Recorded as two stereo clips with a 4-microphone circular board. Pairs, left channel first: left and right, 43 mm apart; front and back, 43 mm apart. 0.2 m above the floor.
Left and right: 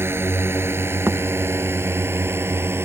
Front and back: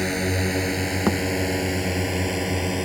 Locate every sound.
0.0 s a drone: 85° right; by 2.9 s 95° right
1.1 s a thud: 115° right